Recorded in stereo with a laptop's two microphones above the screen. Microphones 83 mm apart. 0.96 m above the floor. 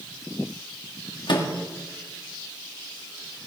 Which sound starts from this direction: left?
A microwave, at 1.3 s.